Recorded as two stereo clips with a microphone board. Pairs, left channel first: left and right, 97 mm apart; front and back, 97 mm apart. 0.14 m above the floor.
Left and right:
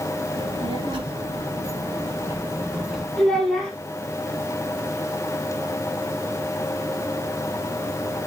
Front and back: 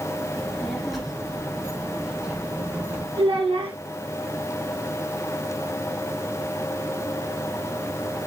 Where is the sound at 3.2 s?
175° left, 2.5 m.